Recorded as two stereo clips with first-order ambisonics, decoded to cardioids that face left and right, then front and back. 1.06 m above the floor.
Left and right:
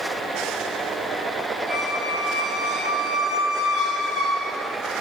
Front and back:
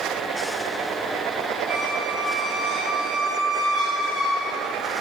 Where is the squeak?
110° right, 7 m.